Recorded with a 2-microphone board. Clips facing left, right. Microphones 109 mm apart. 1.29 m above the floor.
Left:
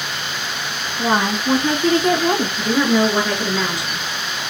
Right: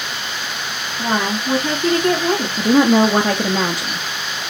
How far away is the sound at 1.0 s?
About 2 m.